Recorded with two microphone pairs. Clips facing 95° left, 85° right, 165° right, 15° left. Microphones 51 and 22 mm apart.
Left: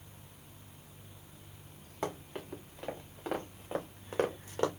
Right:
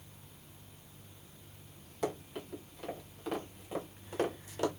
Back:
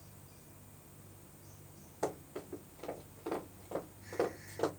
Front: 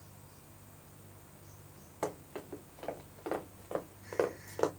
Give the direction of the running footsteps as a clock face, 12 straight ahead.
10 o'clock.